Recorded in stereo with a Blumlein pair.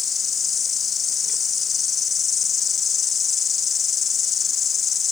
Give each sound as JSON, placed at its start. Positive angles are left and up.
{"t": 0.0, "sound": "an insect", "azimuth_deg": 20}